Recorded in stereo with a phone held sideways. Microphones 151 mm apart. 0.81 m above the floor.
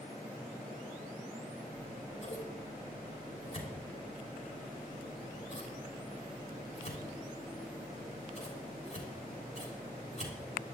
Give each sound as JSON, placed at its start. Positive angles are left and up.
{"t": 1.7, "sound": "scissors", "side_deg": 50, "distance_m": 3.0}